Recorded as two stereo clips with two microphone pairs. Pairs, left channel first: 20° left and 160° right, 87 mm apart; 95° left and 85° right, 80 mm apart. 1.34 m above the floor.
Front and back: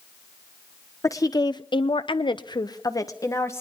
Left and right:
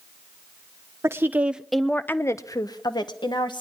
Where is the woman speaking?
30° right, 1.0 m; by 3.6 s 80° left, 1.6 m.